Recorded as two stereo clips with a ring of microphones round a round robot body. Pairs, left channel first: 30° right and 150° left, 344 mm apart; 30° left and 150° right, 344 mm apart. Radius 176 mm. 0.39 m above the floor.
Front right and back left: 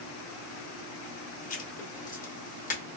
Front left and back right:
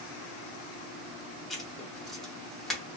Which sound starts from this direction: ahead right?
Writing, at 1.5 s.